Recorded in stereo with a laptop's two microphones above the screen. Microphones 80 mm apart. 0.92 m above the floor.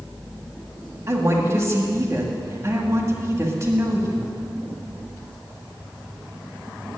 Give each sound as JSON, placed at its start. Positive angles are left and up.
{"t": 1.1, "sound": "a woman speaking", "side_deg": -35, "distance_m": 1.6}